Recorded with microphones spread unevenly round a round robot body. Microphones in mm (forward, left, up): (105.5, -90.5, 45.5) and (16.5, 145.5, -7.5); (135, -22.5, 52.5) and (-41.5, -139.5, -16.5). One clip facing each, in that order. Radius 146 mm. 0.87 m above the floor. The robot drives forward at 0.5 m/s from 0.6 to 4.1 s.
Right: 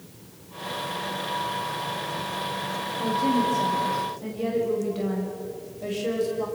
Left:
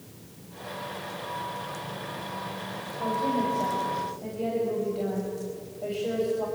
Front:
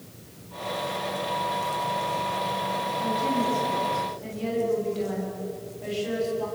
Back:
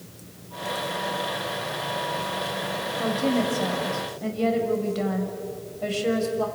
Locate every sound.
3.0 s a woman speaking: 135° right, 5 m; by 6.5 s 140° right, 5.5 m